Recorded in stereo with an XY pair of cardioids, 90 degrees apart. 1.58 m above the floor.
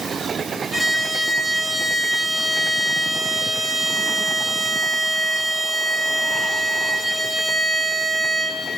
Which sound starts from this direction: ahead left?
A violin, at 0.7 s.